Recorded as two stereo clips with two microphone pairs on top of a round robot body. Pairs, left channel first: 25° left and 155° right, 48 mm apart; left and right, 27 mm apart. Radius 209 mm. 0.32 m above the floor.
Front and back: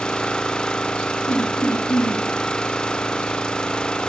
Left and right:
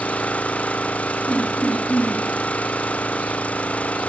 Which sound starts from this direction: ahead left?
Laughter, at 1.3 s.